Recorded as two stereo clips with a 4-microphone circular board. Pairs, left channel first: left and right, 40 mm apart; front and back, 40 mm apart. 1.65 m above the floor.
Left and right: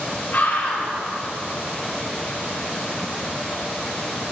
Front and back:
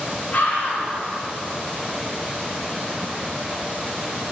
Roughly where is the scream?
Ahead left.